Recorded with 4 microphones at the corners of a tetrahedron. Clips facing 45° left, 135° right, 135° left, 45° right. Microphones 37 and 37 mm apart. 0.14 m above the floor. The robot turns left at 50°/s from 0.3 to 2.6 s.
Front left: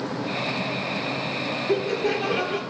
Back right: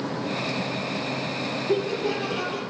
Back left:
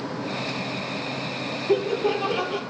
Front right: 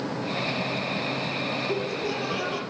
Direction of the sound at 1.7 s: 100° left.